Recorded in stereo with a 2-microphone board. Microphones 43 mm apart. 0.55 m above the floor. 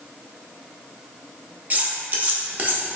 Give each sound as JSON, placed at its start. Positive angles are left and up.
{"t": 1.7, "sound": "cutlery clinking", "side_deg": -40, "distance_m": 0.6}